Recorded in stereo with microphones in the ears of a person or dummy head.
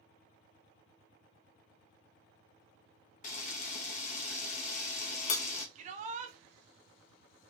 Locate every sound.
3.2 s a camera shutter: 45° left (ahead or behind), 0.7 m
5.8 s a shout: 45° right (ahead or behind), 0.8 m